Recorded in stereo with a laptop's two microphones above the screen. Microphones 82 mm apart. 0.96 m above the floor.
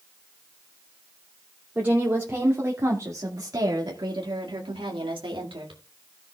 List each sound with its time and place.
1.8 s a woman speaking: 15° right (ahead or behind), 2.5 m; by 5.8 s 75° right (ahead or behind), 2 m